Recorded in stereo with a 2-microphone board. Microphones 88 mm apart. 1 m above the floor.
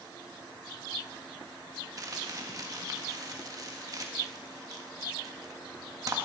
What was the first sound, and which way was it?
Crumpling, 40° right (ahead or behind).